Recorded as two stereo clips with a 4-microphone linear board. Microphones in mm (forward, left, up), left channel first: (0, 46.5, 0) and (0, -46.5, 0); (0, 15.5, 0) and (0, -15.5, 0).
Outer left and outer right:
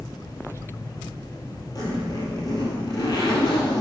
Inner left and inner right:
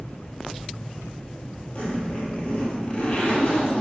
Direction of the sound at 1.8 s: 45° left (ahead or behind).